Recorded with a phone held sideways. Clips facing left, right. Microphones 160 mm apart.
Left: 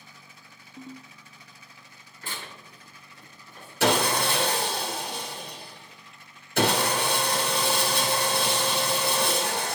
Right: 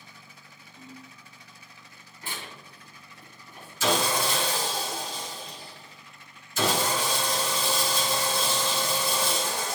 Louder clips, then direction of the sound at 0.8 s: Left 4 dB; 50° left (ahead or behind).